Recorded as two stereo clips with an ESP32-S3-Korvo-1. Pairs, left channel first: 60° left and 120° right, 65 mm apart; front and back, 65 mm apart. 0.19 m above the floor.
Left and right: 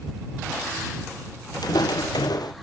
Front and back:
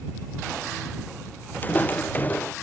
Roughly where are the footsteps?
Ahead left.